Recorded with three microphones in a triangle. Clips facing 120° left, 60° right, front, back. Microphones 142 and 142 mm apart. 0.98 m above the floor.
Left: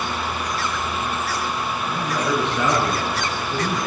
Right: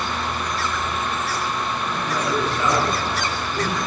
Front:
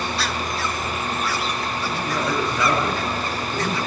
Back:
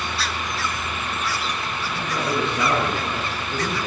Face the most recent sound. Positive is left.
turn(degrees=120)